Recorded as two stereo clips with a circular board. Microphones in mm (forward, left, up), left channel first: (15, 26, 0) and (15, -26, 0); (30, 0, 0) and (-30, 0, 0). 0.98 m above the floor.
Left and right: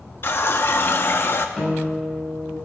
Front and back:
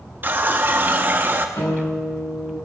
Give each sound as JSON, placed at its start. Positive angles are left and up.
{"t": 0.2, "sound": "a running tap", "azimuth_deg": 125, "distance_m": 0.7}
{"t": 1.6, "sound": "a guitar", "azimuth_deg": 5, "distance_m": 5.5}